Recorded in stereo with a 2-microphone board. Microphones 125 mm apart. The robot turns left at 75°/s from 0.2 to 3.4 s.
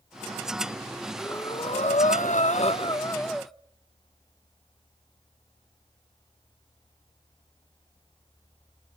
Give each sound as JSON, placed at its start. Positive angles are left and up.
{"t": 1.2, "sound": "breathing", "azimuth_deg": 170, "distance_m": 0.8}